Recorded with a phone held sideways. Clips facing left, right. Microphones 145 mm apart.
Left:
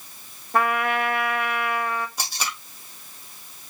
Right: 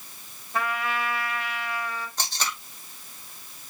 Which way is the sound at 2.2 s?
10° left (ahead or behind).